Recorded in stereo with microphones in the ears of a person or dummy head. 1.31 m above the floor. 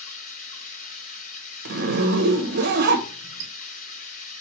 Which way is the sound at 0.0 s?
45° left (ahead or behind).